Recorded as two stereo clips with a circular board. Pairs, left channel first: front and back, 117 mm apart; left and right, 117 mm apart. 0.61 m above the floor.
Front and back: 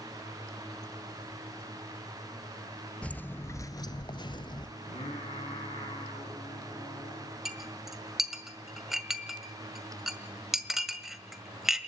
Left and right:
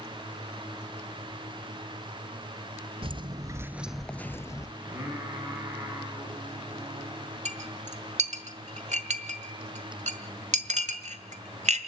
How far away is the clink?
About 1.6 m.